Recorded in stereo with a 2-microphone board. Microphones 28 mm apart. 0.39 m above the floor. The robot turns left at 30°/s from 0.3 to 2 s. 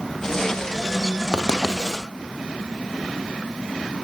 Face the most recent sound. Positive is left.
turn(degrees=-10)  # may be behind; listen again after turning